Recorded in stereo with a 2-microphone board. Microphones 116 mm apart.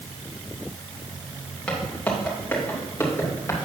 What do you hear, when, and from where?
1.7 s footsteps: 10° left (ahead or behind), 4.5 m; by 3.6 s 25° left (ahead or behind), 5 m